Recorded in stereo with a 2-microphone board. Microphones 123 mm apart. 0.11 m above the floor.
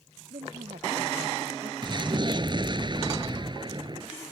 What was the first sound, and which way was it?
A woman speaking, 80° right.